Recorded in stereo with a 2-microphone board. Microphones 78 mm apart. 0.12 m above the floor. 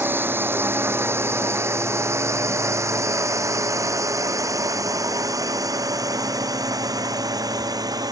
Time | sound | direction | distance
0.0 | a drone | 25° right (ahead or behind) | ?